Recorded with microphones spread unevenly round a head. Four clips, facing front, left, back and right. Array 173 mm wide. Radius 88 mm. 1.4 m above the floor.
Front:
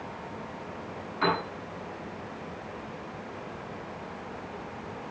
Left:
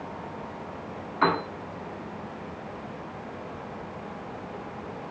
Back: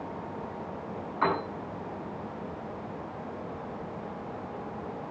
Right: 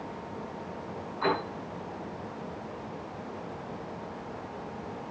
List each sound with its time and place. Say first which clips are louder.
1.2 s a piano: left 4 dB, even; 95° left, 8.5 m